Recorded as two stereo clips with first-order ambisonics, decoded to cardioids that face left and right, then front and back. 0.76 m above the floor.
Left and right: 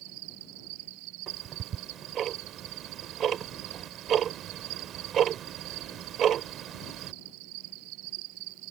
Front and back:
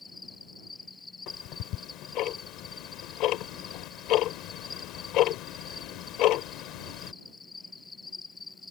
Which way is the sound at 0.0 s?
80° right.